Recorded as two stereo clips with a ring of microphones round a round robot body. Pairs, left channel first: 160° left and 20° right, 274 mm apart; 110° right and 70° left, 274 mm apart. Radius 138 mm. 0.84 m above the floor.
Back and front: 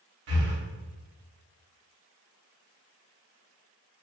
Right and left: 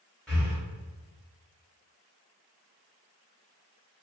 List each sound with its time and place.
0.3 s breathing: 25° right, 1.3 m